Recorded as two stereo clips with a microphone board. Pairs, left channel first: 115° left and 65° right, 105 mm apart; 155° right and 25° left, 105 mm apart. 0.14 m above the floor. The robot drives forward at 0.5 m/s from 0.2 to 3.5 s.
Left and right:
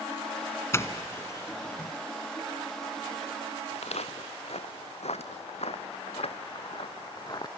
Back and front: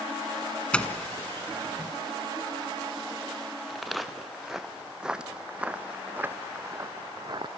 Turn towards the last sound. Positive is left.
turn(degrees=65)